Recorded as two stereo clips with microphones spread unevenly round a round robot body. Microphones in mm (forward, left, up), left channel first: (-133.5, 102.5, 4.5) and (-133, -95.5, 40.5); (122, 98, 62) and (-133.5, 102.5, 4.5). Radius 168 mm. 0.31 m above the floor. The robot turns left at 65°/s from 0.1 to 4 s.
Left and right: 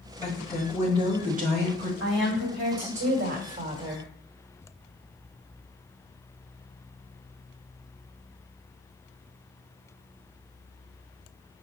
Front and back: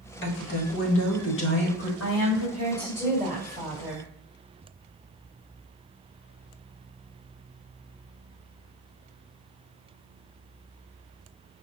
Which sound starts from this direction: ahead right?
A woman speaking, at 2.0 s.